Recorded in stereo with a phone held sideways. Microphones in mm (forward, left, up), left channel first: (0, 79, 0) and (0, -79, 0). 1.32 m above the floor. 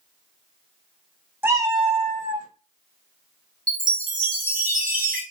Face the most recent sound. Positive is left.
turn(degrees=-60)  # may be behind; listen again after turning